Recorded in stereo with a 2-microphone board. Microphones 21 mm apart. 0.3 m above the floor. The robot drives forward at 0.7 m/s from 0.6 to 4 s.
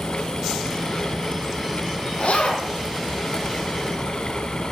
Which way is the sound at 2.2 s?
65° left (ahead or behind).